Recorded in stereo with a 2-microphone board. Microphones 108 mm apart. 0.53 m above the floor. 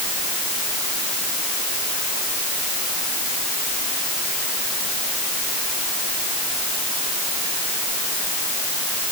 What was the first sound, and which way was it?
Only background noise.